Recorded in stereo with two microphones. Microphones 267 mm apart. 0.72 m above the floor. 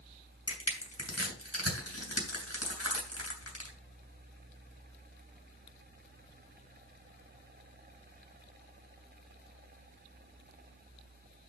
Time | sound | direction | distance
0.5 | crushing | 65° left (ahead or behind) | 3 m